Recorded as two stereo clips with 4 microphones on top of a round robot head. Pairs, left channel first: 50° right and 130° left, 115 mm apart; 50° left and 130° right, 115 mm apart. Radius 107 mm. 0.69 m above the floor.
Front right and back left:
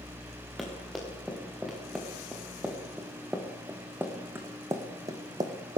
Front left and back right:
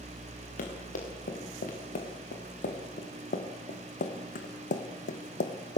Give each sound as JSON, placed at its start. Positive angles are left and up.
{"t": 0.6, "sound": "running footsteps", "azimuth_deg": 40, "distance_m": 5.0}